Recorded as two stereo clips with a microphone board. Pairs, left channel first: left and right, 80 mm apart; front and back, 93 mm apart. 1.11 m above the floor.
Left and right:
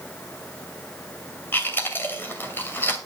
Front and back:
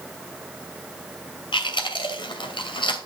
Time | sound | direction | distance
1.5 | chewing | 25° left | 2.5 m